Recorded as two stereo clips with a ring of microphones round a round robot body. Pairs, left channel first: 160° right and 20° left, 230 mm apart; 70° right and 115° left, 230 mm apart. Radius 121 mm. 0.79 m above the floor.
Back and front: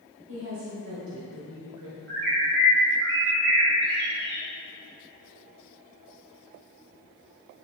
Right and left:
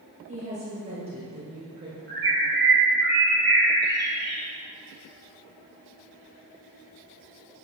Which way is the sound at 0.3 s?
50° left.